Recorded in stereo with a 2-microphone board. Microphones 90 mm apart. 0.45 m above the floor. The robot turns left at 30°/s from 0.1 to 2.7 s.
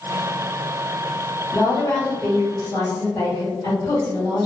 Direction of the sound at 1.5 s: 145° left.